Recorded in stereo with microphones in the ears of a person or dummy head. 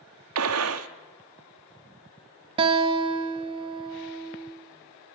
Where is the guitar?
30° right (ahead or behind), 0.7 m.